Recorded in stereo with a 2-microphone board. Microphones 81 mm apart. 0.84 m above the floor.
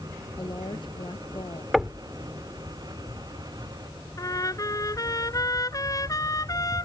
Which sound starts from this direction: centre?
Knocking, at 1.7 s.